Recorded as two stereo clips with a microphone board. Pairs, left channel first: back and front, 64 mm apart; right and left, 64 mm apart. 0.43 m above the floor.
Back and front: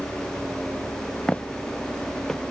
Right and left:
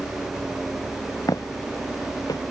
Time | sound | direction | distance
1.3 | footsteps | 105° right | ?